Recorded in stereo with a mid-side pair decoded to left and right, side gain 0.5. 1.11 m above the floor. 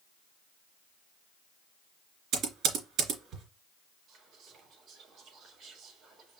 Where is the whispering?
60° right, 2.5 m.